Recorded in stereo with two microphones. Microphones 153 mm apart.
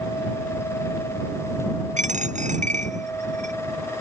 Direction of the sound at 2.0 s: 50° right (ahead or behind).